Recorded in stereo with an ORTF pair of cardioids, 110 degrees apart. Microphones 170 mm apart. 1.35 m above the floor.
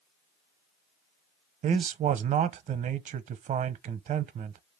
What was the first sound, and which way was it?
A man speaking, 45° right.